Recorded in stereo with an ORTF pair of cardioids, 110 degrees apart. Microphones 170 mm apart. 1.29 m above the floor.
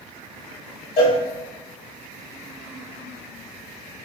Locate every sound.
1.0 s a cowbell: 60° left, 0.8 m